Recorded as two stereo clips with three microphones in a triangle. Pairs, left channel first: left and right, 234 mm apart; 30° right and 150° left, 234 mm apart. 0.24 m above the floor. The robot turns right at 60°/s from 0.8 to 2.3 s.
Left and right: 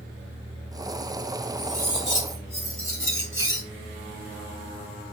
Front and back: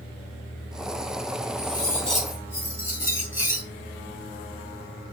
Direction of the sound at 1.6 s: 25° left.